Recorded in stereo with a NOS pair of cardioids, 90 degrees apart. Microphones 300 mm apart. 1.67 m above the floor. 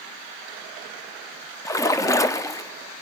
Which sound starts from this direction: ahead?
A splash, at 1.6 s.